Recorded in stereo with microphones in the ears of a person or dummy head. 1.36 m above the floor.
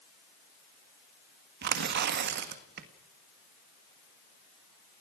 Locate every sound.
1.6 s tearing paper: 55° right (ahead or behind), 1.7 m